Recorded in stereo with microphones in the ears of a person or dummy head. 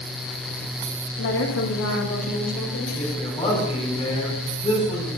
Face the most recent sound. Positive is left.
turn(degrees=25)  # may be behind; listen again after turning